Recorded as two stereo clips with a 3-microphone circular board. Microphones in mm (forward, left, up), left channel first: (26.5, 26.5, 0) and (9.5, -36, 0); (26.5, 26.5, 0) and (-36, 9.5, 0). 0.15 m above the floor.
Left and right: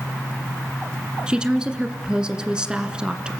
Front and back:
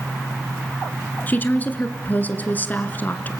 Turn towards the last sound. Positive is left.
turn(degrees=-35)